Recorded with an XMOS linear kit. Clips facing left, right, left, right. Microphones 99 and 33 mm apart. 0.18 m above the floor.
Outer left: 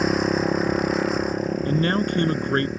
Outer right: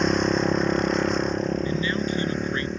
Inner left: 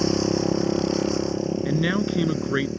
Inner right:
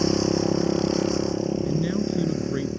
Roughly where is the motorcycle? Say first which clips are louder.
Outer left 1 dB, even; centre.